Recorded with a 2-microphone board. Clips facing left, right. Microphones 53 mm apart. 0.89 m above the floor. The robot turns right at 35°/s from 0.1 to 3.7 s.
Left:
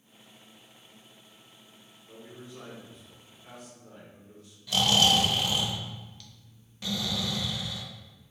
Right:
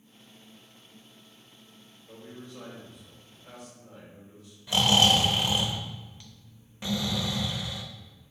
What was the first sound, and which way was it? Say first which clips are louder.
A man speaking: right 1 dB; straight ahead.